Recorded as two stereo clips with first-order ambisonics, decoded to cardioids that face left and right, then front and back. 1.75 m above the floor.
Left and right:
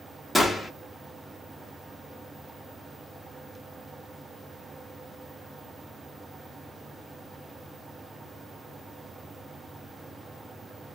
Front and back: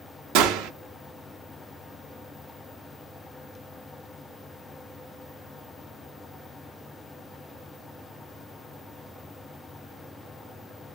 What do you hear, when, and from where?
0.3 s a gunshot: straight behind, 0.5 m